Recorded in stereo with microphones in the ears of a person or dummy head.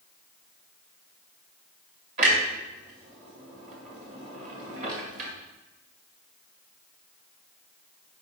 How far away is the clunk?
About 1.5 m.